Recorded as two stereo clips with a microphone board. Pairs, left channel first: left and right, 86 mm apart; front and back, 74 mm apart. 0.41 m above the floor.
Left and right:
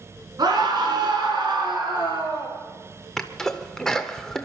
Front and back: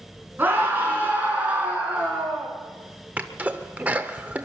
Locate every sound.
0.4 s a scream: 115° right, 4.5 m; by 2.5 s 105° right, 5.5 m
3.2 s a sneeze: 160° left, 0.8 m